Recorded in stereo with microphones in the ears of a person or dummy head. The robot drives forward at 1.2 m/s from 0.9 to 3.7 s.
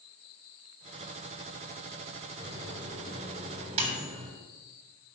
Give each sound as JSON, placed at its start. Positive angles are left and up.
{"t": 2.4, "sound": "a microwave", "side_deg": -25, "distance_m": 4.5}